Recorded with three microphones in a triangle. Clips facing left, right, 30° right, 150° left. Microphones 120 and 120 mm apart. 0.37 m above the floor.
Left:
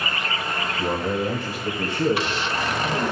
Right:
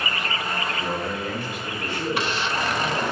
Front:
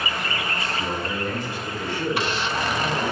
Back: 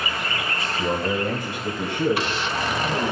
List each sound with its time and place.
0.8 s a man speaking: 140° left, 1.1 m; by 3.1 s 130° left, 2.5 m